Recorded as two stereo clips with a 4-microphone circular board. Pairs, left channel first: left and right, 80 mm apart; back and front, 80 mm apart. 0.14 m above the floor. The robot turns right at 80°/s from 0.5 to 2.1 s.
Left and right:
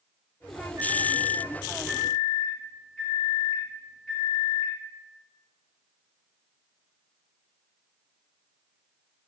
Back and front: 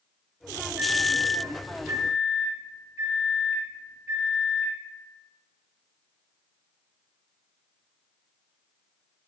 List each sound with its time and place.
0.8 s a microwave: 90° right, 1.2 m; by 4.8 s 20° left, 1.2 m